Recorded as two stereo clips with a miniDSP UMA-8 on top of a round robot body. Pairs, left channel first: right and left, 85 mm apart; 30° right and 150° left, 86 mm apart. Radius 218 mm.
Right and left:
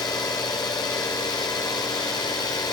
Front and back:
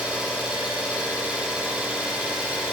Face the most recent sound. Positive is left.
turn(degrees=-130)